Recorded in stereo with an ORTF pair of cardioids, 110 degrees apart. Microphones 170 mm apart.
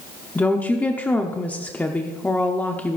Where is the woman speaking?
10° left, 1.0 m.